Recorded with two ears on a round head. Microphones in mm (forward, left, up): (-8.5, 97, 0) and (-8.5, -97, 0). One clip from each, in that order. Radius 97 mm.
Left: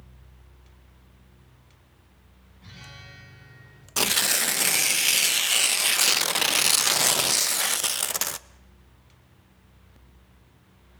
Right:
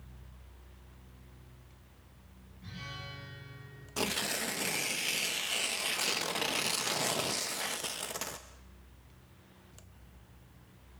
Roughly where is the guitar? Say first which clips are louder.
Right 1 dB; left.